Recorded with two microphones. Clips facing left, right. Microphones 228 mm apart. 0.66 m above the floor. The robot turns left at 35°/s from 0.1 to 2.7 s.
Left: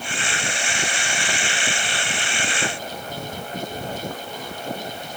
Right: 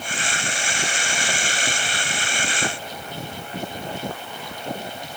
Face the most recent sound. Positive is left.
No sound to turn to.